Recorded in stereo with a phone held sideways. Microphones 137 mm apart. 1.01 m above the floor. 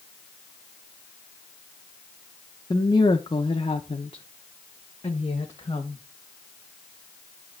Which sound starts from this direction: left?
A woman speaking, at 2.7 s.